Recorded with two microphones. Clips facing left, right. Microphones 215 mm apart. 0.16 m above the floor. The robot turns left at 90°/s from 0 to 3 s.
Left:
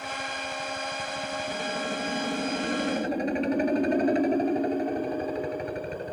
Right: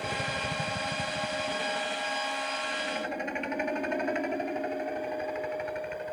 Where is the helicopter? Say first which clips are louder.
Right 2 dB; 50° right; by 6.1 s 40° left.